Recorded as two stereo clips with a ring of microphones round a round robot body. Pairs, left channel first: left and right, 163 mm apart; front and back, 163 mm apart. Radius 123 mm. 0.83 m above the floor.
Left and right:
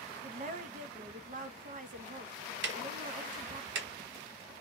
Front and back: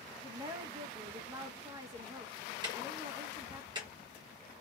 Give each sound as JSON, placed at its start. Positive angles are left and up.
{"t": 0.2, "sound": "a woman speaking", "azimuth_deg": -115, "distance_m": 0.7}
{"t": 2.6, "sound": "ticking", "azimuth_deg": -110, "distance_m": 0.6}